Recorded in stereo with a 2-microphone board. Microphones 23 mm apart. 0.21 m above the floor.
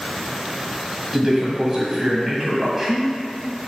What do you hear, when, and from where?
1.1 s a man speaking: 20° right (ahead or behind), 1.4 m